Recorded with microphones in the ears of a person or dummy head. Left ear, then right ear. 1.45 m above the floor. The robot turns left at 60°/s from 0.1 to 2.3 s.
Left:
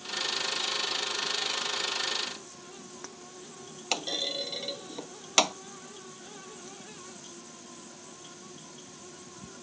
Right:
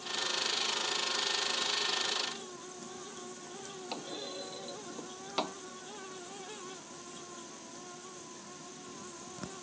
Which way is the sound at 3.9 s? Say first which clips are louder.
Left 12 dB; 80° left.